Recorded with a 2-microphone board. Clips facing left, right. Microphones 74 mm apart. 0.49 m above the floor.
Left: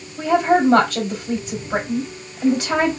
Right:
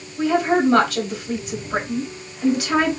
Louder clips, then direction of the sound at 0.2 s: Left 2 dB; 35° left (ahead or behind).